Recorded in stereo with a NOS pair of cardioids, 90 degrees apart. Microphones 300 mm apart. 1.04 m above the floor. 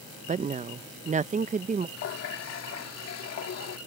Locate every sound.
0.3 s a woman speaking: 25° right
2.0 s a running tap: 55° left